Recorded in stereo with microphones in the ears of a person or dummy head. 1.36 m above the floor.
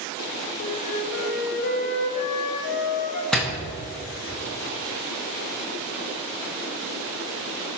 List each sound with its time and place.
0.6 s a flute: 55° left (ahead or behind), 1.6 m
3.3 s a door slam: 5° left (ahead or behind), 1.2 m